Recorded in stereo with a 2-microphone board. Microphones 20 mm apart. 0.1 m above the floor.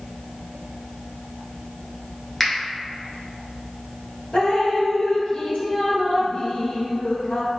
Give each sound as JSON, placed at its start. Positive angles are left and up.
{"t": 2.4, "sound": "a finger snap", "side_deg": 10, "distance_m": 1.1}
{"t": 4.3, "sound": "dripping", "side_deg": 60, "distance_m": 2.0}